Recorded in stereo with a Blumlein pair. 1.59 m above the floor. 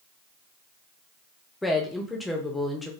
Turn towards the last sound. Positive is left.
turn(degrees=5)